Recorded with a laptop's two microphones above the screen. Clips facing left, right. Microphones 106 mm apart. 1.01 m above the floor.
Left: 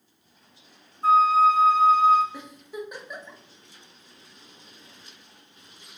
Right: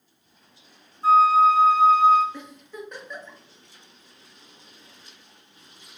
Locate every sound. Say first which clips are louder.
1.0 s a flute: right 2 dB; 50° left (ahead or behind), 1.3 m
2.3 s a giggle: left 2 dB; 10° left (ahead or behind), 0.6 m